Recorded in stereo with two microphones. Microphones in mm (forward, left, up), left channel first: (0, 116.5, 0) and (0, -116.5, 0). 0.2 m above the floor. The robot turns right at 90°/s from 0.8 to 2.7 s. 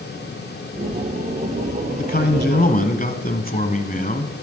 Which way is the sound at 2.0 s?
55° left.